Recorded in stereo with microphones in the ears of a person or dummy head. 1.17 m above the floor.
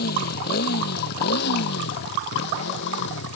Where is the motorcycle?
55° left (ahead or behind); by 3.4 s 70° left (ahead or behind).